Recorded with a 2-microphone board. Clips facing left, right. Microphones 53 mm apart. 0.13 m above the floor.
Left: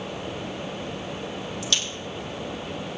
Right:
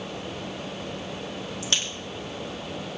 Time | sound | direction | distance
1.6 | a crack | 30° right (ahead or behind) | 3.5 m